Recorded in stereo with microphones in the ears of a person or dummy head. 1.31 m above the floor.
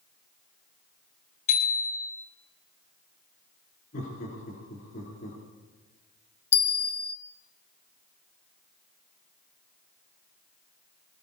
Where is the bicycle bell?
50° left (ahead or behind), 4 m.